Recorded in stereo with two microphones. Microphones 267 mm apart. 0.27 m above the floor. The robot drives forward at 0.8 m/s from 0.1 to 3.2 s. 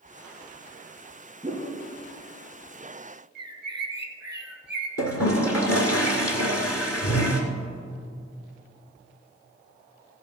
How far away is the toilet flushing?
About 1.7 m.